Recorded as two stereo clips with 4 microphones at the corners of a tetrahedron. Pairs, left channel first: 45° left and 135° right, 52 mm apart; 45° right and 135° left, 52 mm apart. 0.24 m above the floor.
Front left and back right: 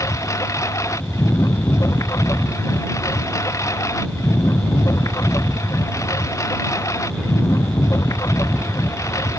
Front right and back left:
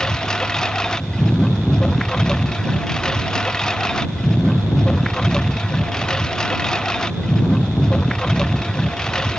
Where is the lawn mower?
35° left.